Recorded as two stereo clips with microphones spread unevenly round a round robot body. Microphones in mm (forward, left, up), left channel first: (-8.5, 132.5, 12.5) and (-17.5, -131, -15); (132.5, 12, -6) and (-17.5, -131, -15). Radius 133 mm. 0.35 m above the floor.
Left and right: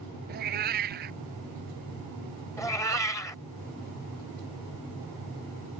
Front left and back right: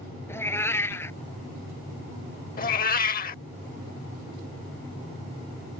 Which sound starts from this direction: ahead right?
A cat meowing, at 0.3 s.